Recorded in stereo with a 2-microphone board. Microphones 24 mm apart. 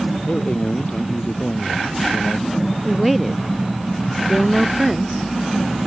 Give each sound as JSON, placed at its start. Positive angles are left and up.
{"t": 0.3, "sound": "a man speaking", "side_deg": 65}
{"t": 2.9, "sound": "a woman speaking", "side_deg": -10}